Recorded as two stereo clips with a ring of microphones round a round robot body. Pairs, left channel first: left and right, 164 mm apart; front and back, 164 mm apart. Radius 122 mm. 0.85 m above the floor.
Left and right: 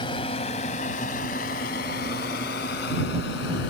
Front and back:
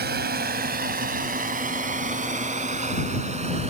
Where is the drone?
160° left; by 3.7 s 130° left.